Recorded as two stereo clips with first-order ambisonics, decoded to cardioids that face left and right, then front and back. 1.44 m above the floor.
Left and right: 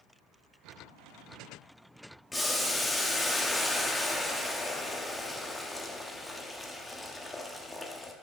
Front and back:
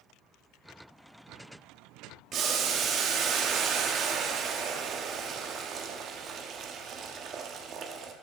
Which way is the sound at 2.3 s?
170° left.